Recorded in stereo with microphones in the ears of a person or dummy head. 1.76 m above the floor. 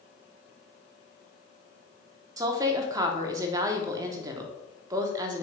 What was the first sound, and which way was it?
A woman speaking, 25° right (ahead or behind).